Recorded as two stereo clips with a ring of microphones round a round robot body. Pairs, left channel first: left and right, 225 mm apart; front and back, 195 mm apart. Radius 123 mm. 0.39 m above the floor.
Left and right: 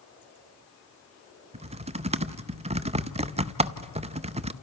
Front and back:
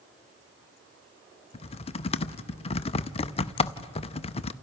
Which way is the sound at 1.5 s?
45° right.